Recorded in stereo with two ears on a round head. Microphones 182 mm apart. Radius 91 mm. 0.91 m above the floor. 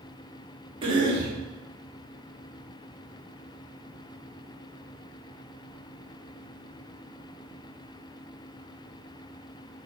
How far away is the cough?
About 1.9 m.